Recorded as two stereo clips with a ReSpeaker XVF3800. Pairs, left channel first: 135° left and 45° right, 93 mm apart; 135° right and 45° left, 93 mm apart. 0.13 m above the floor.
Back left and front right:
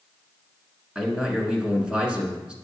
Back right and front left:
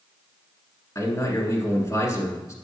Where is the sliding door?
No sliding door in this recording.